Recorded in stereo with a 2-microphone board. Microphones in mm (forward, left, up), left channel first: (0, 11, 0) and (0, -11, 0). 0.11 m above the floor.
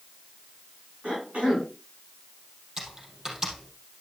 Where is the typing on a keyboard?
25° right (ahead or behind), 3.5 m.